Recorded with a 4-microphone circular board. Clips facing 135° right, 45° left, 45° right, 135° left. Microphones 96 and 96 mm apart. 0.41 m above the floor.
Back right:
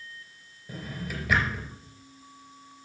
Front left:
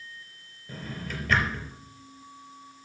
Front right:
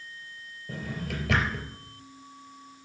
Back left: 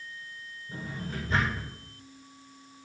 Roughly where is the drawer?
Ahead right.